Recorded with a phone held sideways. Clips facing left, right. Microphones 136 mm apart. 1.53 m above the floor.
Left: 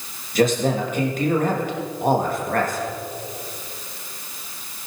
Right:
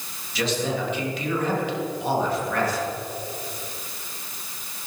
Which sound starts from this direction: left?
A man speaking, at 0.3 s.